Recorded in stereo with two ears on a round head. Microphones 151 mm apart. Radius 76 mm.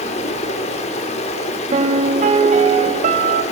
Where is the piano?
45° right (ahead or behind), 0.7 m.